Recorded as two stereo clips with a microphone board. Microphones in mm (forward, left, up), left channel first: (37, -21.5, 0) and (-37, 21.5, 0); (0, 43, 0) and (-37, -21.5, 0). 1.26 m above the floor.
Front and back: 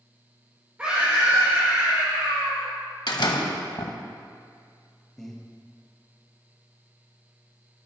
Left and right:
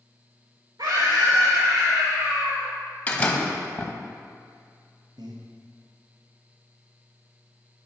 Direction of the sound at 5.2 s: 115° right.